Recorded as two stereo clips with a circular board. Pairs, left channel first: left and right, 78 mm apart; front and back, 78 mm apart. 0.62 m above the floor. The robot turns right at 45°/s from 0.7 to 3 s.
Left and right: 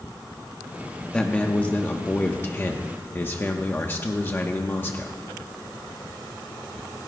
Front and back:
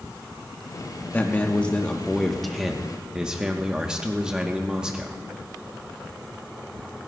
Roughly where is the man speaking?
Ahead left.